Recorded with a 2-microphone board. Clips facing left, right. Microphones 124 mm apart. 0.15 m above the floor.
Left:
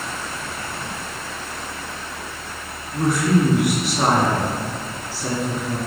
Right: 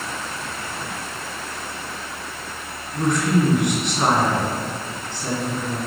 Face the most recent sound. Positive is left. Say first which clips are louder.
# left 1 dB
turn(degrees=5)  # may be behind; listen again after turning